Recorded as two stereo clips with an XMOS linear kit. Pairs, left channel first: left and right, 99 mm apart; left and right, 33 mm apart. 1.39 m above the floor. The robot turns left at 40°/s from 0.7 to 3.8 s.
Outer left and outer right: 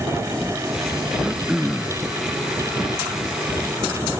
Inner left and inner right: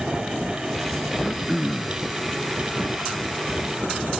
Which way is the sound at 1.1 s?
160° right.